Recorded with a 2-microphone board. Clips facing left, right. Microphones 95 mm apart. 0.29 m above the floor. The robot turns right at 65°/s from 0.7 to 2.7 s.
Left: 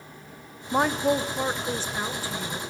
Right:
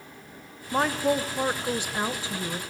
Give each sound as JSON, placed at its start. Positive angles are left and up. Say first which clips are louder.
{"t": 0.7, "sound": "a woman speaking", "louder": "left 1 dB", "side_deg": 10, "distance_m": 0.9}